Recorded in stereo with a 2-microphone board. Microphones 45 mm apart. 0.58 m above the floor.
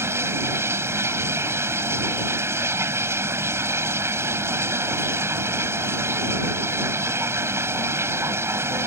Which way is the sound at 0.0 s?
75° right (ahead or behind).